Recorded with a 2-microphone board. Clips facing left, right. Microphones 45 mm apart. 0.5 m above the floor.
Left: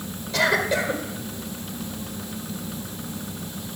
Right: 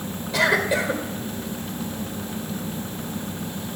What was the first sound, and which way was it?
A cough, 10° right (ahead or behind).